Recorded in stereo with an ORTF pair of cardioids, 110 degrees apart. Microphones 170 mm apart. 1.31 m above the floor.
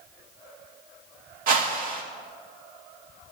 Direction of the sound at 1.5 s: 55° right.